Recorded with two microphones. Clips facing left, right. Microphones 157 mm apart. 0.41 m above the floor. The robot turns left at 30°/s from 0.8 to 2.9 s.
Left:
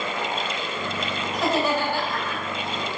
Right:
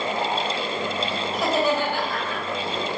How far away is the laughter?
About 2.0 m.